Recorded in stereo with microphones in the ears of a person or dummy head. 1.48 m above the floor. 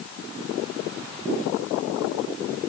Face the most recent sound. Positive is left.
No sound to turn to.